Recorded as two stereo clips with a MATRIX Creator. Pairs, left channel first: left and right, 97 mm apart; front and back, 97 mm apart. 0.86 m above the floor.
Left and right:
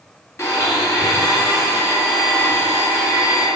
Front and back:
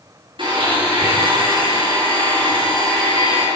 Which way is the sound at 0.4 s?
150° left.